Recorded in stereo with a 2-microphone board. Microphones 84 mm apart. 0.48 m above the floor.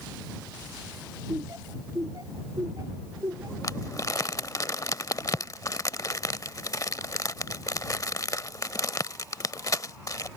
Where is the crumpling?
45° left (ahead or behind).